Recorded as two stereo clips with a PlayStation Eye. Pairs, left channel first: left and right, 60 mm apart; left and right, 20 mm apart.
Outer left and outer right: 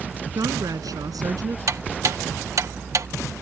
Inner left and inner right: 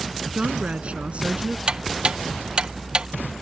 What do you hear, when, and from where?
0.3 s a woman speaking: 80° right
1.7 s ticking: 60° right (ahead or behind)